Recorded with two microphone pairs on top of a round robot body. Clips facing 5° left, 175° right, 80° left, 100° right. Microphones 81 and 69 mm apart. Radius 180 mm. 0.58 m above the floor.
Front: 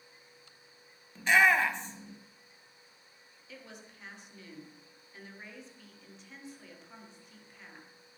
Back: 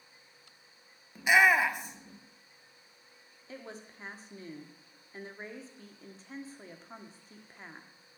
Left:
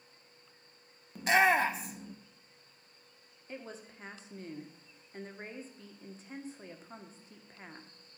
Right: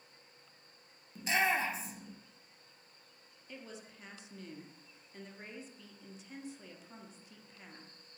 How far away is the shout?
About 1.4 m.